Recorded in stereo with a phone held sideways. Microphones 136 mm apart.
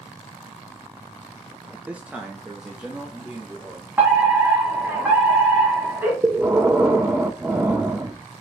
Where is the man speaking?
10° right (ahead or behind), 0.5 m; by 3.9 s centre (ahead or behind), 1.5 m.